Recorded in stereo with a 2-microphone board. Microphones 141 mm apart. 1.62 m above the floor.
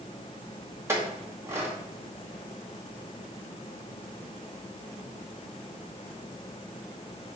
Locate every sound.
0.9 s a clink: 15° right (ahead or behind), 1.8 m